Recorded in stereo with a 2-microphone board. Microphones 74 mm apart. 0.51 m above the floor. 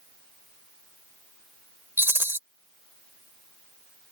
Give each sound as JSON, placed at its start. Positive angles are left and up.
{"t": 2.0, "sound": "a rattle", "side_deg": -30}